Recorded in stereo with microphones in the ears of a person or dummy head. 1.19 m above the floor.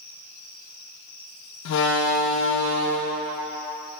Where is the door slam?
65° left (ahead or behind), 0.5 m.